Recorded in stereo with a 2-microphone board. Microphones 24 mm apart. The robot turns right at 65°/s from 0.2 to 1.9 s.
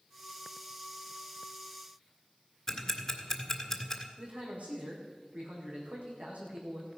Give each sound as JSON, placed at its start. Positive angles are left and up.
{"t": 2.7, "sound": "ticking", "side_deg": 15, "distance_m": 1.5}
{"t": 4.2, "sound": "a man speaking", "side_deg": -65, "distance_m": 5.5}